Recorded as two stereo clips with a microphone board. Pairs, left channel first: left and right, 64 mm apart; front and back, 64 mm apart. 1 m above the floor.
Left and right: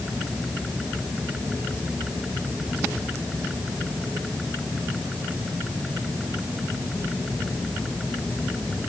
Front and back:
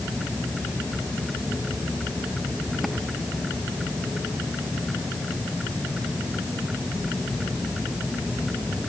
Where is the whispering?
I don't hear whispering.